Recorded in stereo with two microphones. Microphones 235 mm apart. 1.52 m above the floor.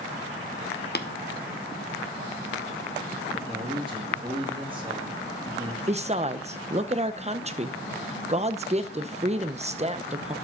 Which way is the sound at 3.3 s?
20° right (ahead or behind).